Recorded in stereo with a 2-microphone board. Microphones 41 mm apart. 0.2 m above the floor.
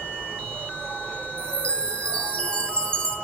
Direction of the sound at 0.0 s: 85° right.